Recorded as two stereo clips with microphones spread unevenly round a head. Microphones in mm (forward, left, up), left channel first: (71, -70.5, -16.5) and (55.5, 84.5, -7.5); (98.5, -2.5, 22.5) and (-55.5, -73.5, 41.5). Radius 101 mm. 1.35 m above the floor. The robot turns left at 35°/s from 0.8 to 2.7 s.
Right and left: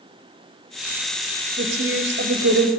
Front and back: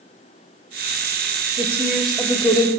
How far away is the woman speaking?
About 0.7 m.